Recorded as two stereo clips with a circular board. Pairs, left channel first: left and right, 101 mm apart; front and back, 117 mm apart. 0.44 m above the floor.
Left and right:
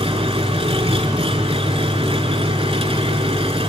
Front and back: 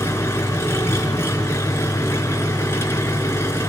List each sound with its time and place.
0.0 s an engine running: 70° right, 3 m